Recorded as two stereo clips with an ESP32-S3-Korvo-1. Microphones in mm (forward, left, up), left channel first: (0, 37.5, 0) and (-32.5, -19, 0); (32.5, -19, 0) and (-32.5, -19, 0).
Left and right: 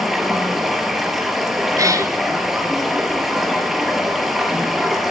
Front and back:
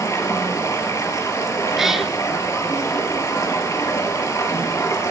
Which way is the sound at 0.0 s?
35° right.